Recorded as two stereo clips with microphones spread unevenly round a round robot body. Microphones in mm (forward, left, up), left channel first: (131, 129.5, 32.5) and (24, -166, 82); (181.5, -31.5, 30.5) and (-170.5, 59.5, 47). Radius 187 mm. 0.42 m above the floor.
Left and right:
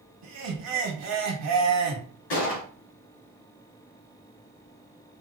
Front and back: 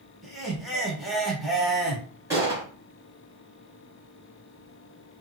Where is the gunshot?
85° left, 3 m.